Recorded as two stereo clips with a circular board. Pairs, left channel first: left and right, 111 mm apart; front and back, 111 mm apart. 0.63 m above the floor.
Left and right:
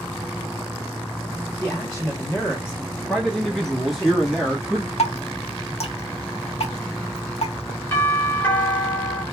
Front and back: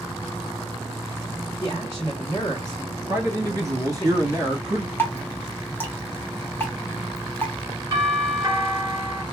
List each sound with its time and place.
1.6 s a man speaking: 20° left, 1.2 m
3.1 s a man speaking: straight behind, 1.3 m
5.0 s dripping: 70° left, 0.7 m
7.9 s a doorbell: 140° left, 1.2 m